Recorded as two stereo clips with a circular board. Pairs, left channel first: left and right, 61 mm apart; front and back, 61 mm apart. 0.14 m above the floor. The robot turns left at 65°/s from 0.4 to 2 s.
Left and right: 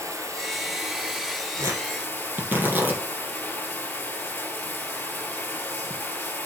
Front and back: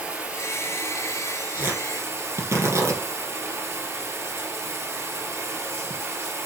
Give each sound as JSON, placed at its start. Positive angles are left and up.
{"t": 0.0, "sound": "running water", "azimuth_deg": -110, "distance_m": 1.8}
{"t": 1.6, "sound": "tearing paper", "azimuth_deg": -120, "distance_m": 4.0}